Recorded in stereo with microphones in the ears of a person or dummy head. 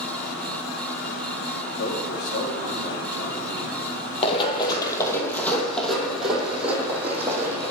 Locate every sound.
1.8 s a man speaking: 70° left (ahead or behind), 4.5 m
4.2 s running footsteps: 35° left (ahead or behind), 3 m; by 7.7 s 15° right (ahead or behind), 5.5 m